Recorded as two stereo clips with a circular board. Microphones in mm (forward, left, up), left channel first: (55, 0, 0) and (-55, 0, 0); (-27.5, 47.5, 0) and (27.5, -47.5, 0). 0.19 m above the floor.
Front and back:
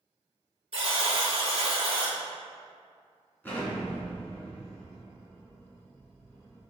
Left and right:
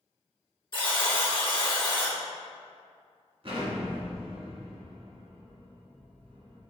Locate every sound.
0.7 s a buzzer: 160° left, 1.4 m
3.4 s an explosion: 70° right, 1.7 m